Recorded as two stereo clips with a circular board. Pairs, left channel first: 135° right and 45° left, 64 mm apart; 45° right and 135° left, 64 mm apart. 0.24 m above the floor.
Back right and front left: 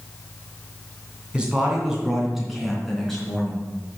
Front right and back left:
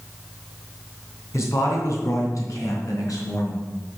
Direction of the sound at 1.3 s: 25° right.